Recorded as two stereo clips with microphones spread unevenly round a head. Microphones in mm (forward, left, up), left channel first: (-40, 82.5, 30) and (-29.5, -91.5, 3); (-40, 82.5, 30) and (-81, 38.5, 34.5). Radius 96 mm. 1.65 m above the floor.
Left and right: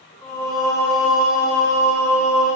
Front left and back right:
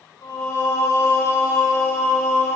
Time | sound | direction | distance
0.2 | singing | 20° left | 7 m